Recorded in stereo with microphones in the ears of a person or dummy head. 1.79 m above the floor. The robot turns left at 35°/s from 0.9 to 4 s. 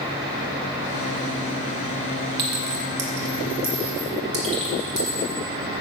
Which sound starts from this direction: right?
A clink, at 2.4 s.